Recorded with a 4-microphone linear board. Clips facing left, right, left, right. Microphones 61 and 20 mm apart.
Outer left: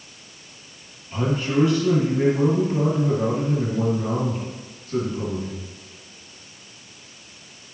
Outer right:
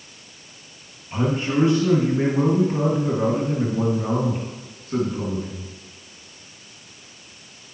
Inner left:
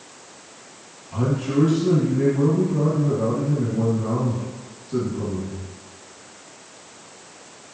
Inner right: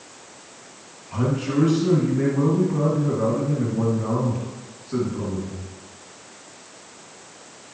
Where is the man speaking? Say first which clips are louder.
Outer right 1 dB, inner left 1 dB; 35° right (ahead or behind), 2.0 m.